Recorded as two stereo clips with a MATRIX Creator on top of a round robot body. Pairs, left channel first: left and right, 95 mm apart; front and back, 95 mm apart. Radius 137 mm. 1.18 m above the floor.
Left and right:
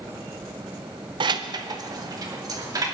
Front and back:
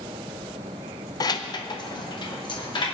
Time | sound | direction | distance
1.2 | keys jangling | 50° right | 0.6 m